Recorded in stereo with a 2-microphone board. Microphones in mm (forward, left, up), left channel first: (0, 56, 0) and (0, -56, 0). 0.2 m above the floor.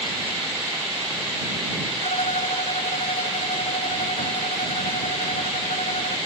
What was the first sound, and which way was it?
A violin, 80° left.